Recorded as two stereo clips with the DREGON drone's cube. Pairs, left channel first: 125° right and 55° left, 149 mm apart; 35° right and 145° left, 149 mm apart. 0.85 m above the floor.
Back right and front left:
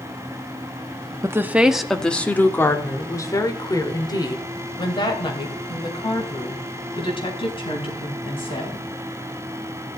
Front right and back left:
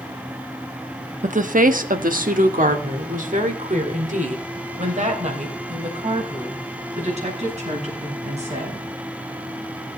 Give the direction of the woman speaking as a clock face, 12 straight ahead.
8 o'clock.